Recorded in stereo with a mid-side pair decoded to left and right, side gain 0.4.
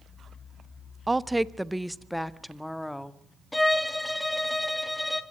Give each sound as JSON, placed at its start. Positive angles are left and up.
{"t": 1.1, "sound": "a woman speaking", "azimuth_deg": -20, "distance_m": 0.7}
{"t": 3.5, "sound": "a violin", "azimuth_deg": 10, "distance_m": 1.9}